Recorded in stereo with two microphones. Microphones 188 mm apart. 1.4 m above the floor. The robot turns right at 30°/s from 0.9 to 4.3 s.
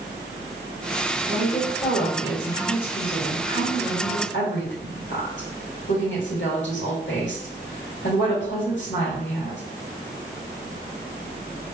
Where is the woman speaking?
10° left, 2.5 m; by 9.6 s 100° left, 2.5 m.